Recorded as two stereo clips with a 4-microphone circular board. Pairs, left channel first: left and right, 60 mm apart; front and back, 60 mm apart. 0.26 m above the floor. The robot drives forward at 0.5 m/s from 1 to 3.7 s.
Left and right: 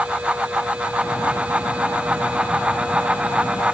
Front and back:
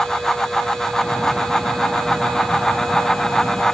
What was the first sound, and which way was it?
Only background noise.